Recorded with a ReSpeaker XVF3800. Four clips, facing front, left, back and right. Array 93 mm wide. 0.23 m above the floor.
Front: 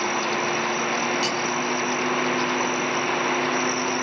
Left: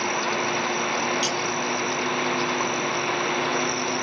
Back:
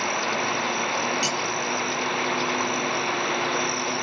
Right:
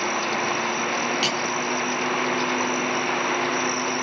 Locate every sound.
1.2 s cutlery clinking: 100° right, 1.2 m